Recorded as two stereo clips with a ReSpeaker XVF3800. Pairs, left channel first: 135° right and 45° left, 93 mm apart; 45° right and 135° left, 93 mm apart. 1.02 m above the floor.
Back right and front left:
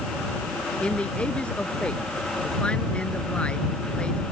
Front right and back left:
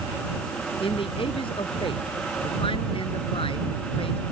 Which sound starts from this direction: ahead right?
A man speaking, at 0.8 s.